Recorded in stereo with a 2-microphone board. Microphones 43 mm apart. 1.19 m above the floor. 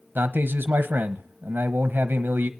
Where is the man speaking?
45° right (ahead or behind), 1.1 m.